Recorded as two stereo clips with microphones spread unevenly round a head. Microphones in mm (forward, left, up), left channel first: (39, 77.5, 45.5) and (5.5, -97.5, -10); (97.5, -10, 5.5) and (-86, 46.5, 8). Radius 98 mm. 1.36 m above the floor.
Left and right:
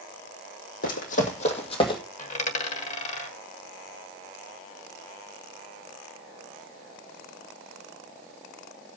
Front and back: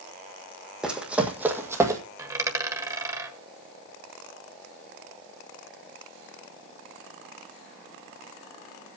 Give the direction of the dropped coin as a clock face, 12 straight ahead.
9 o'clock.